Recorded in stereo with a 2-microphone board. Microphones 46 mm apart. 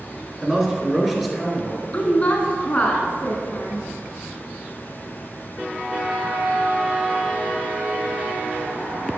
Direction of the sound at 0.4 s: 10° right (ahead or behind).